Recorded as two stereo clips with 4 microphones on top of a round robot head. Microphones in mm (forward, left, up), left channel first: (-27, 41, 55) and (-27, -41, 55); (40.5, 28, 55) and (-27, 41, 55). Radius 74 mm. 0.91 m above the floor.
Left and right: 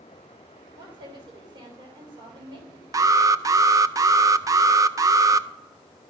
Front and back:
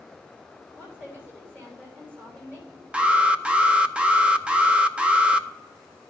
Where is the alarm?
120° right, 0.5 m.